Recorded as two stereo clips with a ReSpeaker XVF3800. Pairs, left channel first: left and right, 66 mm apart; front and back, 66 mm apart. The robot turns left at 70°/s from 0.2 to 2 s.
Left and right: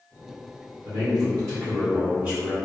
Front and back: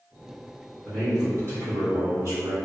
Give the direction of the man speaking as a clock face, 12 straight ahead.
3 o'clock.